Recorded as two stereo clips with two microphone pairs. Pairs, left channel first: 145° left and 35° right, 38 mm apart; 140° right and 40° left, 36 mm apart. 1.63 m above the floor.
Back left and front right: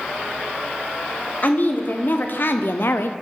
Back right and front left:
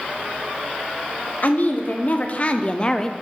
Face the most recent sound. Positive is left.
turn(degrees=145)